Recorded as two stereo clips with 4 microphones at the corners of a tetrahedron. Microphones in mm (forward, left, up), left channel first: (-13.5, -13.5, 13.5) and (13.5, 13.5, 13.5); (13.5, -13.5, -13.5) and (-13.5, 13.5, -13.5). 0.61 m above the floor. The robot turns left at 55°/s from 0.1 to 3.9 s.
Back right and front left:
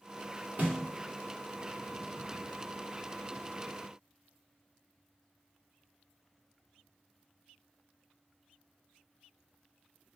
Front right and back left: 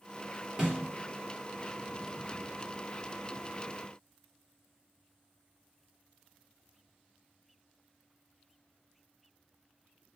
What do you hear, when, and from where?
0.6 s a snare drum: 75° left, 2.5 m; by 0.8 s 65° left, 2.5 m